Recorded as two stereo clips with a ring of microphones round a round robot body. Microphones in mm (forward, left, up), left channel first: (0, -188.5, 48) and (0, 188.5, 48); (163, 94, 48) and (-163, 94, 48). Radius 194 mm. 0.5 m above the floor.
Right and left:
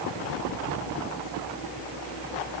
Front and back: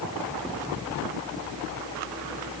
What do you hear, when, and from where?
Only background noise.